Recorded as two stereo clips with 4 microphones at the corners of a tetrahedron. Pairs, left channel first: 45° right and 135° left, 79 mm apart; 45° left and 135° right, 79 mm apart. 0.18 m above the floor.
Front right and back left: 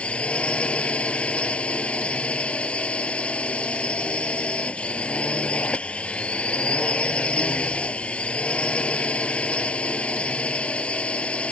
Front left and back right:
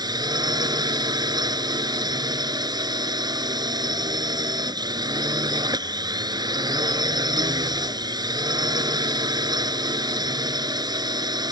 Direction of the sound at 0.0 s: 120° right.